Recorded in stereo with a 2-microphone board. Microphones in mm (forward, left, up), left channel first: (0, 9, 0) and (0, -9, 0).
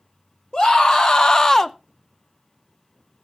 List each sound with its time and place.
0.5 s a scream: 45° left (ahead or behind), 1.9 m; by 1.8 s 5° left (ahead or behind), 0.6 m